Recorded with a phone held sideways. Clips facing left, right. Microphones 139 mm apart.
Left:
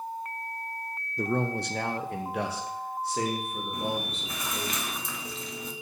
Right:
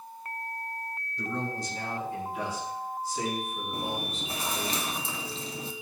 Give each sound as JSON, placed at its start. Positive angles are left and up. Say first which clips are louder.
{"t": 1.2, "sound": "a man speaking", "louder": "left 6 dB", "side_deg": 50, "distance_m": 0.6}
{"t": 3.7, "sound": "chewing", "louder": "left 3 dB", "side_deg": -30, "distance_m": 0.6}